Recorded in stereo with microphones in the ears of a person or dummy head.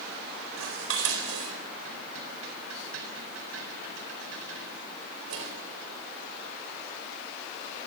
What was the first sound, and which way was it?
Dishes clattering, 70° right (ahead or behind).